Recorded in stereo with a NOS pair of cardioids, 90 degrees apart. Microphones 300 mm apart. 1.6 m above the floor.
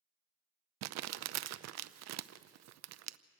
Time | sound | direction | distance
0.8 | crumpling | 65° right | 0.7 m